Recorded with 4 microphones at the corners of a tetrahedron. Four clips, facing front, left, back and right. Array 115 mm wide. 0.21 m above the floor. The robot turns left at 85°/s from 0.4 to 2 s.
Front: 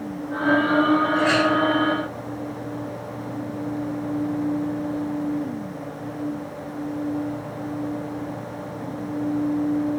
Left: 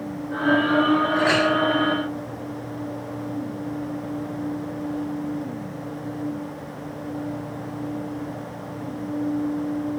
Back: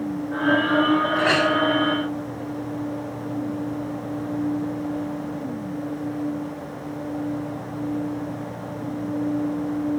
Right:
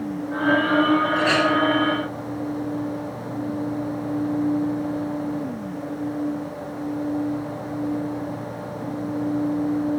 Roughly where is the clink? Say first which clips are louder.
Even, front 1 dB; behind right.